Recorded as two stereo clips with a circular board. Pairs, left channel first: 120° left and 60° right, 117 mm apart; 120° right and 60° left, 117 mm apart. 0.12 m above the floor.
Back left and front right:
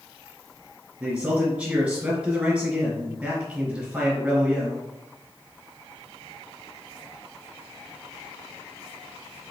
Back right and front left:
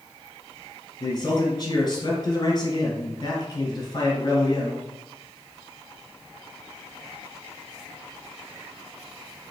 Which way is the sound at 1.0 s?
135° right.